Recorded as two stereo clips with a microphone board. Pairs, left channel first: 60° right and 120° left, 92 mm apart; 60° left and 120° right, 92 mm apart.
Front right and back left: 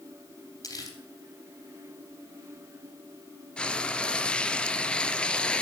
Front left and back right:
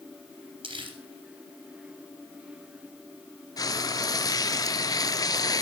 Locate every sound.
0.6 s crumpling: 105° right, 3 m
3.6 s frying: 20° left, 0.6 m